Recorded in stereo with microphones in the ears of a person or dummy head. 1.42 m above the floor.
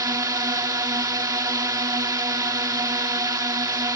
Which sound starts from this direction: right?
A drone, at 0.0 s.